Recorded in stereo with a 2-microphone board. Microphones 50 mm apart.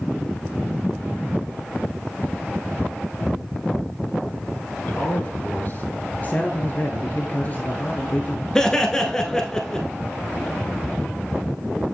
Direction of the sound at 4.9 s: 40° left (ahead or behind).